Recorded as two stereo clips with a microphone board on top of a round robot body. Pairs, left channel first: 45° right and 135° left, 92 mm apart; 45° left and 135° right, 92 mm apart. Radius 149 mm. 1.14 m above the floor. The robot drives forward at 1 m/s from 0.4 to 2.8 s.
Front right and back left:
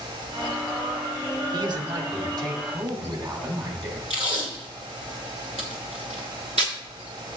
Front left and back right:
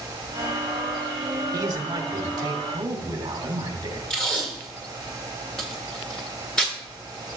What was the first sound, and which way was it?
A man speaking, 175° left.